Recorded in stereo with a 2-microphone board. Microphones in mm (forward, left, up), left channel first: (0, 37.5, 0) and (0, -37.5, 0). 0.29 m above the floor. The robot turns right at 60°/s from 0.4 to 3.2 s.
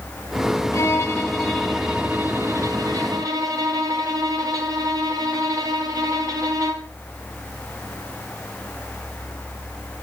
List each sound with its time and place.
0.7 s a violin: 130° left, 2.5 m; by 6.9 s 85° right, 2.5 m